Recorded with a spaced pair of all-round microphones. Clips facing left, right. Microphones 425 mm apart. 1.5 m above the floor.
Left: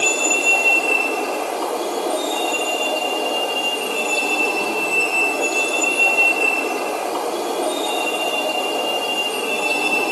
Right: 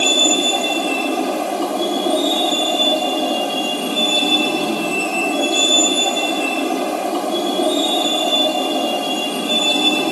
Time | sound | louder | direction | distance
0.0 | a vehicle | right 4 dB | 50° right (ahead or behind) | ?